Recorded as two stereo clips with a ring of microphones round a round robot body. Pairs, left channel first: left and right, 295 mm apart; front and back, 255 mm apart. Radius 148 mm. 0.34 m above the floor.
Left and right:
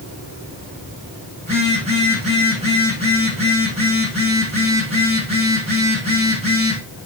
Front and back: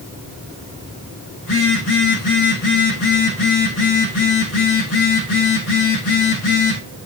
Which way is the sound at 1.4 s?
20° right.